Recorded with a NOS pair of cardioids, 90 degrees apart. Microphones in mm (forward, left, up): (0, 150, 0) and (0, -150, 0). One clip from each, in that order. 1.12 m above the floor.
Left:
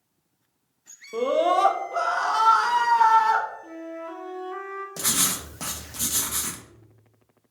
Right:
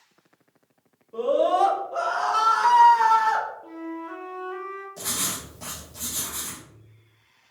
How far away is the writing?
About 0.9 m.